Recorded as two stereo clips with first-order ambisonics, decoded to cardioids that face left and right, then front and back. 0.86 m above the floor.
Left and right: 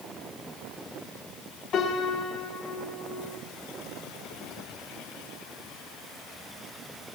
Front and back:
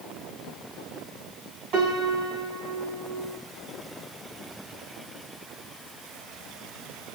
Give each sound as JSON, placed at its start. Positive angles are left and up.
{"t": 1.7, "sound": "a piano", "azimuth_deg": 140, "distance_m": 8.5}